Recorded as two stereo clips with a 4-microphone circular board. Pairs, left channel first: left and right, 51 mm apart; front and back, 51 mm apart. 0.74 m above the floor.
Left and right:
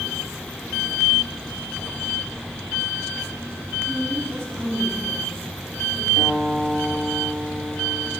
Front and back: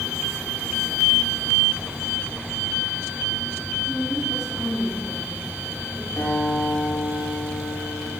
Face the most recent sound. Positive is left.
turn(degrees=20)